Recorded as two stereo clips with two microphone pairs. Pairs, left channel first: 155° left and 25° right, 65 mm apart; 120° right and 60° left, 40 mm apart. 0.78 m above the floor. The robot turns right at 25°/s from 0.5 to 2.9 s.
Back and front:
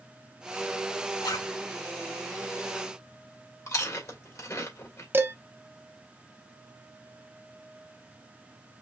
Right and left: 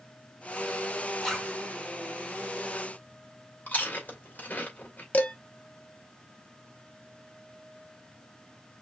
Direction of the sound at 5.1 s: 70° right.